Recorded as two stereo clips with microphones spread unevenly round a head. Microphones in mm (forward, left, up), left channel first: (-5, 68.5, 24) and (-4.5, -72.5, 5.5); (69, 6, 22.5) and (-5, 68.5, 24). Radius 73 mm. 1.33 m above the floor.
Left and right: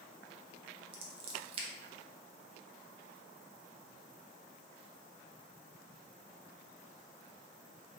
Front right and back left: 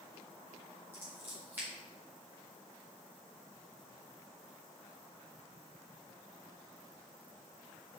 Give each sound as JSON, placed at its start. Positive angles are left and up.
{"t": 0.9, "sound": "scissors", "azimuth_deg": -145, "distance_m": 0.8}